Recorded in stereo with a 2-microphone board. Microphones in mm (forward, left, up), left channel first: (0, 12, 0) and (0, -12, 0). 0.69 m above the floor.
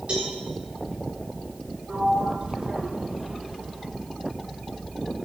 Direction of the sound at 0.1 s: 50° right (ahead or behind).